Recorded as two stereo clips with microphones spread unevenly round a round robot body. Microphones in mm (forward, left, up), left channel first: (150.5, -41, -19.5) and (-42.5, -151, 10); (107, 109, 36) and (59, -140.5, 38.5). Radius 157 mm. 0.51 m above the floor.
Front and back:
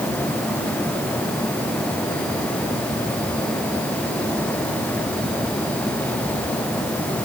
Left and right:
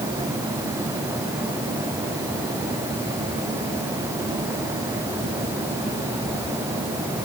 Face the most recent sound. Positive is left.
No sound to turn to.